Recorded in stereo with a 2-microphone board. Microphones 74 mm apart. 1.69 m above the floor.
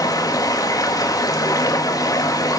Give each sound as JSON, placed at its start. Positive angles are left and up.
{"t": 0.0, "sound": "running water", "side_deg": 55, "distance_m": 1.5}